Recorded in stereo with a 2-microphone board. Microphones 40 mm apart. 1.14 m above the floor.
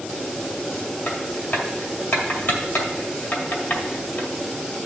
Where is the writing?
50° left (ahead or behind), 2 m.